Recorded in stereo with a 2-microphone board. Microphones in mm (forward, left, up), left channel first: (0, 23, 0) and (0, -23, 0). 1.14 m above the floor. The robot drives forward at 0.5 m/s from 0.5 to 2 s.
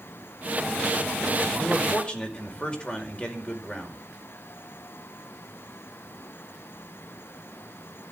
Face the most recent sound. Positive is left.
turn(degrees=25)  # may be behind; listen again after turning